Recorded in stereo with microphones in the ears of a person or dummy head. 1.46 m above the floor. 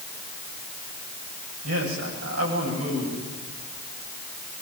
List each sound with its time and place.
1.6 s a man speaking: 90° right, 9.5 m